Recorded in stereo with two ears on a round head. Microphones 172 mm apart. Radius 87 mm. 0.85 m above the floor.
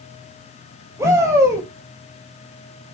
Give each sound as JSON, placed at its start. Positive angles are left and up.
{"t": 1.0, "sound": "a shout", "side_deg": -15, "distance_m": 3.5}